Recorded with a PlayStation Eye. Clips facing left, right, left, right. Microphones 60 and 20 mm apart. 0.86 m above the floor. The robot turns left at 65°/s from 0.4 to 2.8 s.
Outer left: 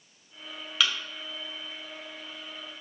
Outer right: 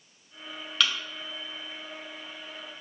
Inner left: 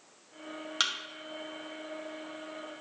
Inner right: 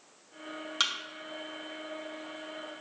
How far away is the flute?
I don't hear a flute.